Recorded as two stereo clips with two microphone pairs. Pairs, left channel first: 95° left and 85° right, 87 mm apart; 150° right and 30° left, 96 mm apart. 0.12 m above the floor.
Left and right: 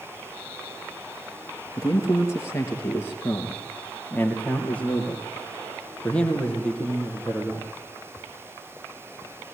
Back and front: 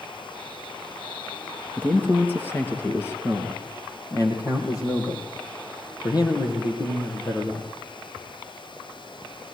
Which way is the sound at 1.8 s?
135° left.